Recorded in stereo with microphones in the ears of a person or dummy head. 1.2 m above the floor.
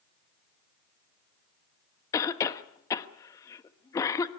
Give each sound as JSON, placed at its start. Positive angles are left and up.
{"t": 2.1, "sound": "a cough", "side_deg": 15, "distance_m": 1.3}